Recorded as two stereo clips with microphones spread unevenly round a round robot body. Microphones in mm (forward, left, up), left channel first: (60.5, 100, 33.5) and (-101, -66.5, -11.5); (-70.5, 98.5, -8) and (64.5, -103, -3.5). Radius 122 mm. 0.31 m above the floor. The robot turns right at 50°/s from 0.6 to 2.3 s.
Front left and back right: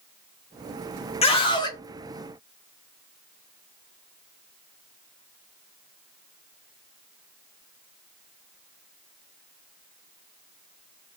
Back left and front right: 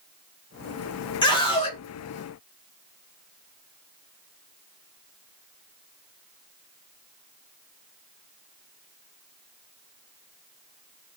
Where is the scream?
100° left, 0.8 m; by 1.8 s 125° left, 0.8 m.